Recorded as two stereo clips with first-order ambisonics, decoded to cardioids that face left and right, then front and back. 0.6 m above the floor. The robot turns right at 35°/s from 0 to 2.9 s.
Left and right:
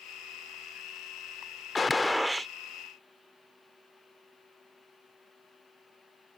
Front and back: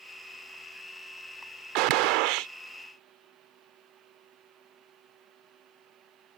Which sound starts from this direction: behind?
A gunshot, at 1.8 s.